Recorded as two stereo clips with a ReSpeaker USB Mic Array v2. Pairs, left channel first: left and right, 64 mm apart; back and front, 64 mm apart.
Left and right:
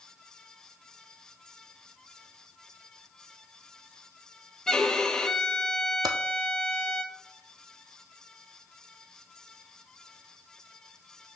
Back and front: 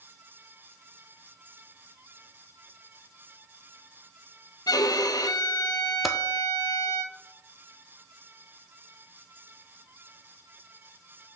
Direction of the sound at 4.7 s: 170° left.